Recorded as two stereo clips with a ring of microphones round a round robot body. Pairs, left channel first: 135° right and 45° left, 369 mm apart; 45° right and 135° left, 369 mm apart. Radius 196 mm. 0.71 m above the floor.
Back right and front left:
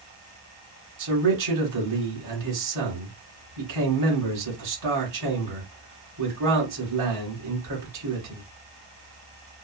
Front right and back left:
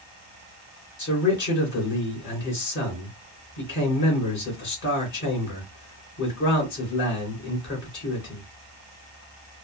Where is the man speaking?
15° left, 2.5 m.